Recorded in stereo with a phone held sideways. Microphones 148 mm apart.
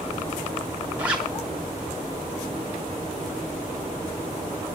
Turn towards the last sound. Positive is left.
turn(degrees=-10)  # may be behind; listen again after turning